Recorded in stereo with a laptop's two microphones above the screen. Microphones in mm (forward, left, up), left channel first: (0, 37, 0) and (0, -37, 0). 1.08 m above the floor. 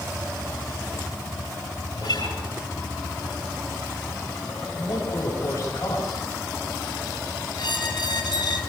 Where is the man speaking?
50° left (ahead or behind), 7 m.